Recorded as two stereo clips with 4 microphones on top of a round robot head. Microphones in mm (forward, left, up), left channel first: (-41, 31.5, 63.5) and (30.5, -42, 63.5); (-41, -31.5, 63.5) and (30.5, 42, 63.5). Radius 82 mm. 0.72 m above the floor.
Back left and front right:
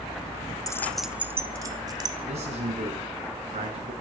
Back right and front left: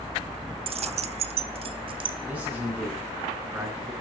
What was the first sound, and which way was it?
Keys jangling, 80° left.